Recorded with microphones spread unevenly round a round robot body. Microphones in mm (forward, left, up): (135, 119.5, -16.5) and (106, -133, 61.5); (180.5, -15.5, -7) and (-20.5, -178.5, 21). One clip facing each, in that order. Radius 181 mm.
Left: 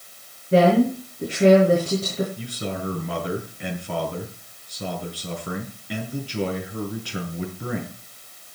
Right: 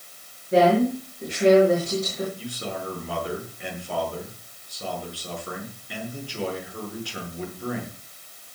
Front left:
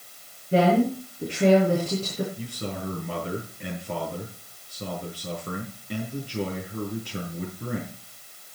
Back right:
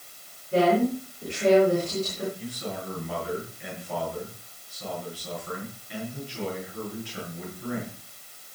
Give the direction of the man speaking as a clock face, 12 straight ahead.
9 o'clock.